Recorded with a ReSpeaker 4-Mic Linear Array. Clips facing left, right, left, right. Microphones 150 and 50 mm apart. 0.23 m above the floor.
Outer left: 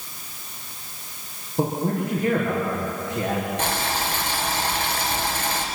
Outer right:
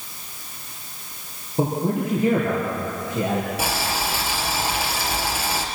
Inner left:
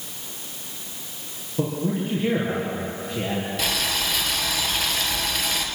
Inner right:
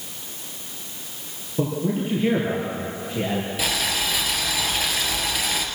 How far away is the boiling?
About 2.5 m.